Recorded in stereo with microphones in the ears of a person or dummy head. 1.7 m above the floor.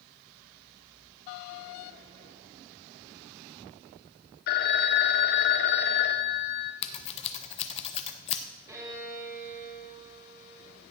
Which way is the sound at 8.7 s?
15° right (ahead or behind).